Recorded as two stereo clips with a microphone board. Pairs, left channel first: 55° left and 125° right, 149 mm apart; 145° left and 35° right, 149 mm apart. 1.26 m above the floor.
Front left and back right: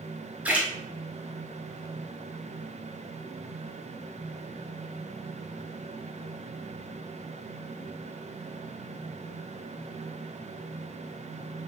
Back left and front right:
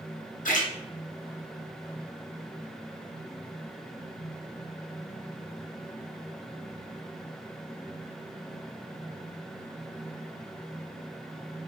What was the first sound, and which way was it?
A splash, 155° left.